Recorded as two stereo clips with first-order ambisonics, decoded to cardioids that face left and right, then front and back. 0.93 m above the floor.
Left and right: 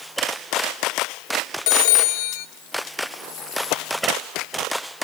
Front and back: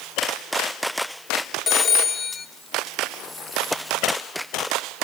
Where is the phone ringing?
70° left, 1.2 m.